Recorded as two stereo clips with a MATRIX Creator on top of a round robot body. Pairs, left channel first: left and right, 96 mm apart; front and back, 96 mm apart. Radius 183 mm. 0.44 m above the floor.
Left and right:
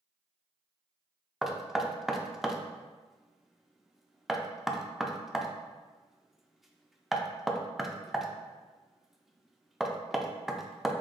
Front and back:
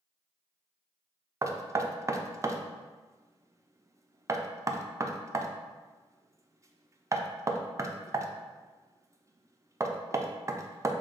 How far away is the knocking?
About 0.5 m.